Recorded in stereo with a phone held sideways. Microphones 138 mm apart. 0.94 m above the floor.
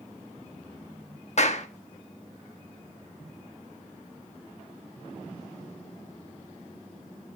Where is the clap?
55° left (ahead or behind), 1.2 m.